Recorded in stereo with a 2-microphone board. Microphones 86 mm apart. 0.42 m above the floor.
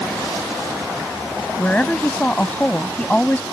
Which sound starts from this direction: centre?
A woman speaking, at 1.6 s.